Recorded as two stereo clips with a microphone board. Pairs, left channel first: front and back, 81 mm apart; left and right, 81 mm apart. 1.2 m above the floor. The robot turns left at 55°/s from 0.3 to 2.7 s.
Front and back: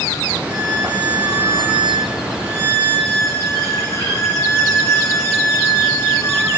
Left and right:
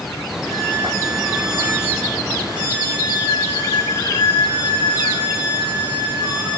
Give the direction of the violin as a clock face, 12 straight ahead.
6 o'clock.